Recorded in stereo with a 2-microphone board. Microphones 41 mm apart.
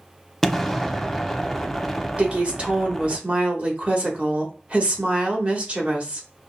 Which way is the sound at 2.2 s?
30° right (ahead or behind).